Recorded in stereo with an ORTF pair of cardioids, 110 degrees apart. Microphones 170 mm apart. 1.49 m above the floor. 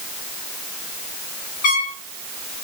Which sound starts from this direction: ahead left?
A trumpet, at 1.6 s.